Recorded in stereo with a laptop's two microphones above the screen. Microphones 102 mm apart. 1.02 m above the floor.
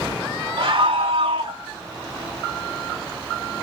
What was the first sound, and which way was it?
A scream, 60° right (ahead or behind).